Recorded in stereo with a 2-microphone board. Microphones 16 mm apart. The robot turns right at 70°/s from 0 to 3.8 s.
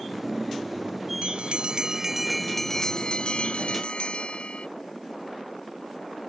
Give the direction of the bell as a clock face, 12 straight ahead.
3 o'clock.